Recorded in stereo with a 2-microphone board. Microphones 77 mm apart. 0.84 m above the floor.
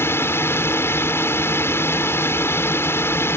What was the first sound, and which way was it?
A drone, 30° left (ahead or behind).